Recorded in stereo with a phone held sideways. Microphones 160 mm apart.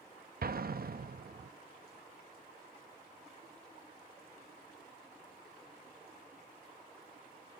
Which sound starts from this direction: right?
An explosion, at 0.4 s.